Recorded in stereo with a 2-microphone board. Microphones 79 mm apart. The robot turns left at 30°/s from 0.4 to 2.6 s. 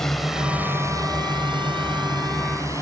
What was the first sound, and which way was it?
A drone, 5° left (ahead or behind).